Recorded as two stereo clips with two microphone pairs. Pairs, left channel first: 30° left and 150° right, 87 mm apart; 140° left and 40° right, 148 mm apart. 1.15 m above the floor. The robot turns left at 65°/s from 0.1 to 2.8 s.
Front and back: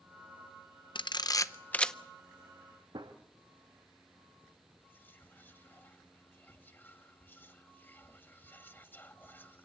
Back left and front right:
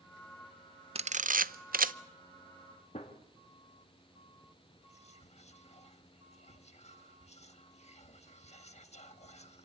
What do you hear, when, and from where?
0.9 s a camera shutter: 10° left, 0.6 m; by 1.9 s 55° right, 0.6 m
2.9 s a gunshot: straight behind, 1.6 m
4.8 s whispering: 95° left, 1.5 m